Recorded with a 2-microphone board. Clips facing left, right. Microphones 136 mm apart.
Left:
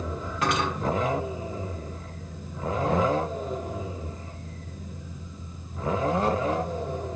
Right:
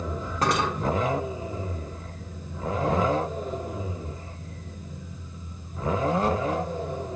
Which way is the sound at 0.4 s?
35° right (ahead or behind).